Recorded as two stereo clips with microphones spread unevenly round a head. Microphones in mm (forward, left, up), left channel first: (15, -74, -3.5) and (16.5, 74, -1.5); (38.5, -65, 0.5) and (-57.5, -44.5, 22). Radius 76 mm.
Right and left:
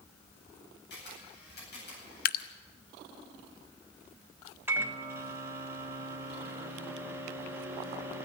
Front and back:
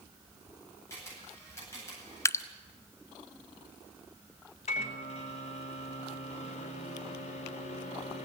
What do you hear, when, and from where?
0.9 s a camera shutter: 75° right, 9.5 m
2.2 s dripping: 75° right, 0.8 m
4.7 s a microwave: 15° left, 1.7 m